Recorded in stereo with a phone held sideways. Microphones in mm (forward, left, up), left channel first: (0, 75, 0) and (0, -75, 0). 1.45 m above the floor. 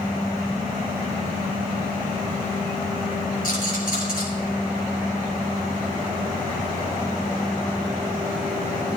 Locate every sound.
3.4 s a rattle: 80° left, 6.5 m